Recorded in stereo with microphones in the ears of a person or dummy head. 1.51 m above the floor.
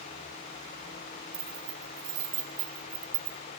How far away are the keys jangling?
About 4 m.